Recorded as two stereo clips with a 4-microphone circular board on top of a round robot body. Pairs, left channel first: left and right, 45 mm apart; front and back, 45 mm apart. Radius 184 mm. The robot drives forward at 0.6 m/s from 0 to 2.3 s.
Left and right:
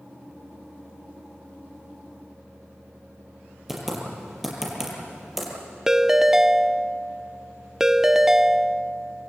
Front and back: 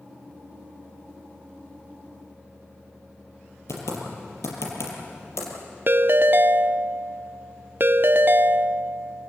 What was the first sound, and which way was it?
Typing on a keyboard, 5° right.